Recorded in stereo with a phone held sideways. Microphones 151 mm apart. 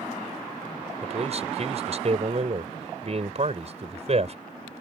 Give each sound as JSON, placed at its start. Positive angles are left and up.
{"t": 1.0, "sound": "a man speaking", "side_deg": -50}